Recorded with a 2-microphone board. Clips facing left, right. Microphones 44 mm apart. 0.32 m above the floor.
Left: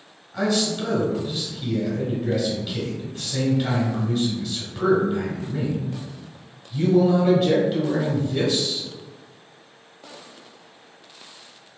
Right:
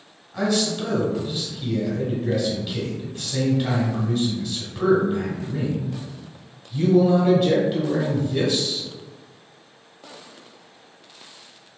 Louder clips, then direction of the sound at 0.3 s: Even; centre (ahead or behind).